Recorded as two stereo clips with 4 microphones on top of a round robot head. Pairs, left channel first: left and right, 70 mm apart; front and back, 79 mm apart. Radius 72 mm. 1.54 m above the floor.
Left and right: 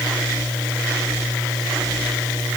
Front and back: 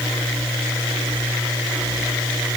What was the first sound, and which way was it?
Only background noise.